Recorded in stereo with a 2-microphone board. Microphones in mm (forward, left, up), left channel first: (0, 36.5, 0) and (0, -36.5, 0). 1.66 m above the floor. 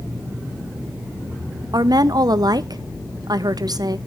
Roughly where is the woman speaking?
Right.